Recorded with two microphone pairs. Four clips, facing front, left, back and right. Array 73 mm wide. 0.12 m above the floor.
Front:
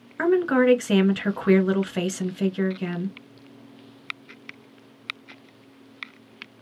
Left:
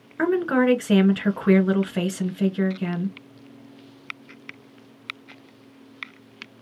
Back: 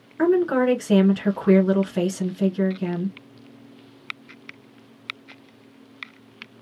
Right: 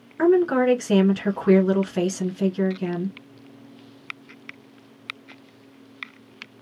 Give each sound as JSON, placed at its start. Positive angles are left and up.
{"t": 0.2, "sound": "a woman speaking", "azimuth_deg": 45, "distance_m": 1.1}